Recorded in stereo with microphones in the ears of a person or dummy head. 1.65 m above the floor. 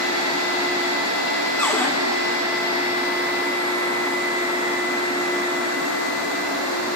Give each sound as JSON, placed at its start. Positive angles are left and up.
{"t": 1.6, "sound": "a cupboard door", "side_deg": 10, "distance_m": 1.3}